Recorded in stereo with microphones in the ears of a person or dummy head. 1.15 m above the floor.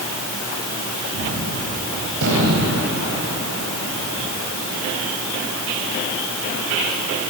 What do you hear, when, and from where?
1.1 s a gunshot: 65° right (ahead or behind), 4 m